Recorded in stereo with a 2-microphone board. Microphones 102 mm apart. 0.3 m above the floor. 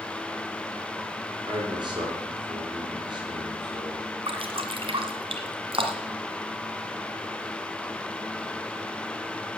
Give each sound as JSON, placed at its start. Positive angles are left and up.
{"t": 1.5, "sound": "a man speaking", "side_deg": -50, "distance_m": 6.0}
{"t": 4.3, "sound": "dripping", "side_deg": -65, "distance_m": 1.8}